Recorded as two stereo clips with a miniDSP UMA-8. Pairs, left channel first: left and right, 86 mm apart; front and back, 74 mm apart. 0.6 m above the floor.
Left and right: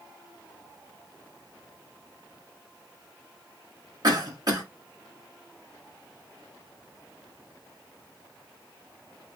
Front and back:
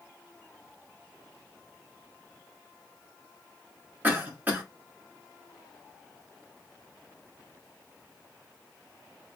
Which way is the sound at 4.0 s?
115° right.